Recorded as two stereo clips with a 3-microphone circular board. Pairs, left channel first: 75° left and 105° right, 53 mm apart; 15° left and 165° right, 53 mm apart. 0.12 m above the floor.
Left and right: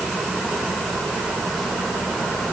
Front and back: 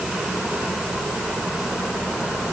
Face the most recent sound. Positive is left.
No sound to turn to.